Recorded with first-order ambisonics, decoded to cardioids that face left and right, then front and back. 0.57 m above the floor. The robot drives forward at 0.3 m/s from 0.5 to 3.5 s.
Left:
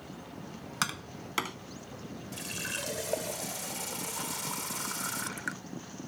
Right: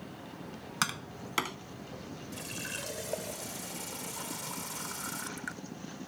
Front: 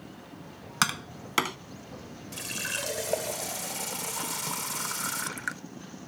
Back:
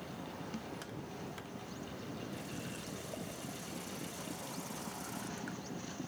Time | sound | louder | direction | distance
0.8 | tapping | even, front 17 dB | straight ahead | ?
2.3 | a running tap | left 3 dB, front 12 dB | 10° left | ?